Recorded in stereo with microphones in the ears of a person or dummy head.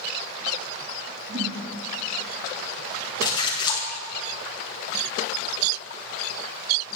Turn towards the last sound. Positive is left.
turn(degrees=20)  # may be behind; listen again after turning